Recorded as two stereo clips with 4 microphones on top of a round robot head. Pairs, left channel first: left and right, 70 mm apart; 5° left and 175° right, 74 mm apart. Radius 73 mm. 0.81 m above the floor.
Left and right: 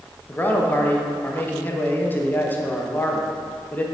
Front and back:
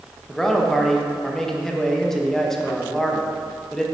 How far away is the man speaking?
About 1.1 m.